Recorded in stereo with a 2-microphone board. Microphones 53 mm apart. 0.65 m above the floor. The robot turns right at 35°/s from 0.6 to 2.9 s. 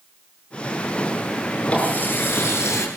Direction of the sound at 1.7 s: 25° left.